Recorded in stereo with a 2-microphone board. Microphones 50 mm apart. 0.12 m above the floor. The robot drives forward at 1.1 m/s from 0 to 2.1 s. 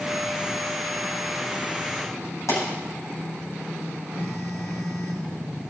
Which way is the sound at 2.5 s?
75° left (ahead or behind).